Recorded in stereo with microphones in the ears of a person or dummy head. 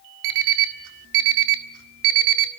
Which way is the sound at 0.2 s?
70° right (ahead or behind).